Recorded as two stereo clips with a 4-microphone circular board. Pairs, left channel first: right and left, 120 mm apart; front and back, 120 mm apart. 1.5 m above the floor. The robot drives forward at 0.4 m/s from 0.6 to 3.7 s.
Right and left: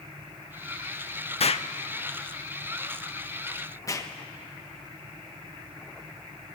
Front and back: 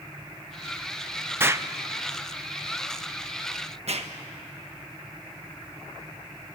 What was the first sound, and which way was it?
An explosion, 110° right.